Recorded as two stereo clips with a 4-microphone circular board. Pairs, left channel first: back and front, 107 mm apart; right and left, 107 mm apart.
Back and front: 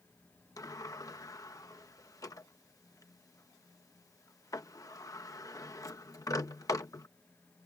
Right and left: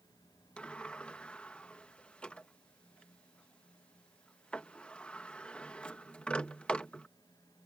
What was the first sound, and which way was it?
A sliding door, 160° right.